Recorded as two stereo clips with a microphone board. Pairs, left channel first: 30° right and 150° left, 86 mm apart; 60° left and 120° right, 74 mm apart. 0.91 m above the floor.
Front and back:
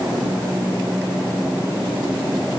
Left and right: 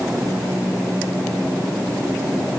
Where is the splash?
I don't hear a splash.